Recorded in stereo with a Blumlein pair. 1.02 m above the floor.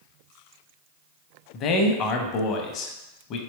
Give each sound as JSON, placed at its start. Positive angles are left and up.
{"t": 1.5, "sound": "a man speaking", "azimuth_deg": 35, "distance_m": 0.6}